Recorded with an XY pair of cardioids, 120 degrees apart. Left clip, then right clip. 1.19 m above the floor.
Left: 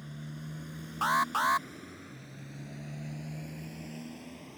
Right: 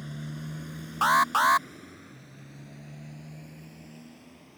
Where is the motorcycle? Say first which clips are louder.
Right 5 dB; 30° right; by 4.6 s 35° left.